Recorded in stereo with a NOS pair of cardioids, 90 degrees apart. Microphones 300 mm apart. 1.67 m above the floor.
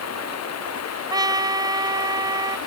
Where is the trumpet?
15° right.